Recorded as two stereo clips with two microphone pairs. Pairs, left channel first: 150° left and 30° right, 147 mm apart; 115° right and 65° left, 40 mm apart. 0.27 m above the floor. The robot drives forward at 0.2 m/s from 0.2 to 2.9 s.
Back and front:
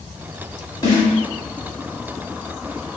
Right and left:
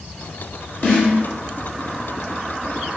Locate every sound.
0.8 s a snare drum: 160° right, 1.6 m